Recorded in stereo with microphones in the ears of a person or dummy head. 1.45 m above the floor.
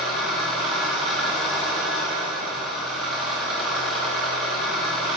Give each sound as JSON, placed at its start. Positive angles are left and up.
{"t": 0.0, "sound": "an engine running", "side_deg": 0, "distance_m": 0.9}